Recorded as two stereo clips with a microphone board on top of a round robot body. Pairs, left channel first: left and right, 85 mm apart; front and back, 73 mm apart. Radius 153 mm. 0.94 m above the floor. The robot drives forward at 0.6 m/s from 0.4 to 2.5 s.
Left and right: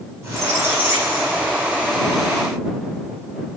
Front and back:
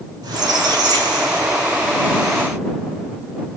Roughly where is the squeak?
Behind right.